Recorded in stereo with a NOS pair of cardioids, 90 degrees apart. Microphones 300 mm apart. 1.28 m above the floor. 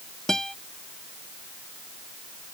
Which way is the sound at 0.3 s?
Straight ahead.